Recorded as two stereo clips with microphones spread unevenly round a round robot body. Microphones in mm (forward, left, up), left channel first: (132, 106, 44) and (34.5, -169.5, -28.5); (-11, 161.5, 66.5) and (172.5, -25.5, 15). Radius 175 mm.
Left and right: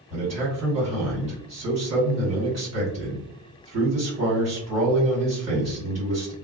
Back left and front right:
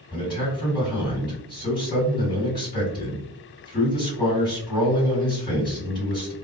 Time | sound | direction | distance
0.1 | a man speaking | 145° right | 1.7 m